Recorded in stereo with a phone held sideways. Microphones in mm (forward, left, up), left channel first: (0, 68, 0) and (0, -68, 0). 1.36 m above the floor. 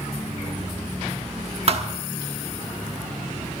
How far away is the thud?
About 1.2 m.